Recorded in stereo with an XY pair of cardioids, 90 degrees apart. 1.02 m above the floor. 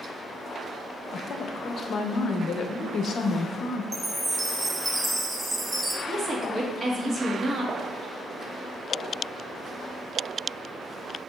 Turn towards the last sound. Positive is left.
turn(degrees=-40)